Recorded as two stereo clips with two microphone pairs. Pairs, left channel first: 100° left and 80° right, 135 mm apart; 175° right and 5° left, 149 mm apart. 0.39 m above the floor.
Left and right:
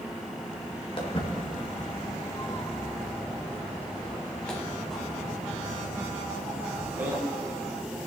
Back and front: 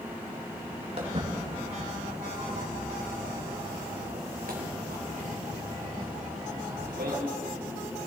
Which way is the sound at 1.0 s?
50° left.